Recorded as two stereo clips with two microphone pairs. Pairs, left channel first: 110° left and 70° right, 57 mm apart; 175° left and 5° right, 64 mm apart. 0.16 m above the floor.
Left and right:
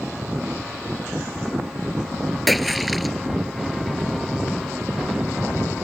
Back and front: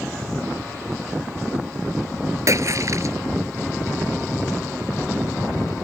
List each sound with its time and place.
2.5 s a splash: 20° left